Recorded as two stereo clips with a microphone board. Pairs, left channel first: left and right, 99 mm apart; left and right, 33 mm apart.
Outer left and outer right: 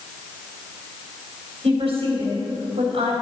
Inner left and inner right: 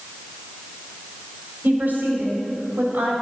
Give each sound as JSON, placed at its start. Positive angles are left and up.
{"t": 1.6, "sound": "a woman speaking", "side_deg": -80, "distance_m": 3.5}